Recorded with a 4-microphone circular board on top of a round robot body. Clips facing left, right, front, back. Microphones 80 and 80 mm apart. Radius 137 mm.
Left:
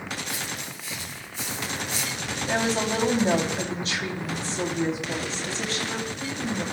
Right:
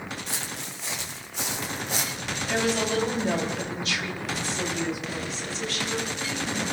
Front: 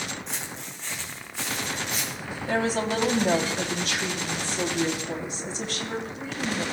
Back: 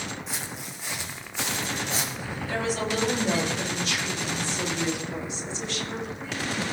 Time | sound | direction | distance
0.3 | footsteps | 95° right | 2.5 m
2.5 | a woman speaking | 35° left | 3 m